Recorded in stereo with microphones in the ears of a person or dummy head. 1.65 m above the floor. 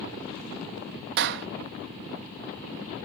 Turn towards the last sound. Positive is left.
turn(degrees=-60)  # may be behind; listen again after turning